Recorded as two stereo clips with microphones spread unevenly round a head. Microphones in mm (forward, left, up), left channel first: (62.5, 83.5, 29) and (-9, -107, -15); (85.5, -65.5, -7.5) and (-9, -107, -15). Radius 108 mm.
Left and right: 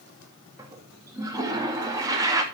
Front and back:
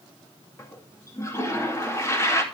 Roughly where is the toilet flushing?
Ahead right.